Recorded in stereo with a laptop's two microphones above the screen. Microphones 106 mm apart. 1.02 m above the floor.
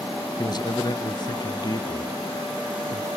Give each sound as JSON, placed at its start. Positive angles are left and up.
{"t": 0.4, "sound": "a man speaking", "side_deg": 45, "distance_m": 0.6}